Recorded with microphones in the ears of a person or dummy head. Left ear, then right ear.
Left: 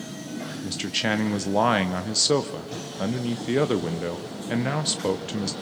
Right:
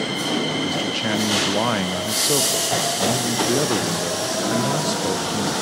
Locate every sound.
0.6 s a man speaking: 15° left (ahead or behind), 0.5 m